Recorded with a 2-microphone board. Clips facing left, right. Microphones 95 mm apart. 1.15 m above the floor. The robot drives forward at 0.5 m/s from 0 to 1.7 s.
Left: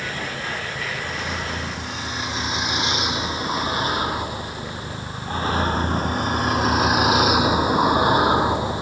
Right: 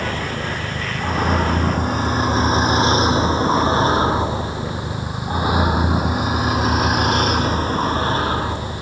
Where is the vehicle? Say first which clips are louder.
Right 5 dB; 50° right (ahead or behind); by 8.8 s 25° left (ahead or behind).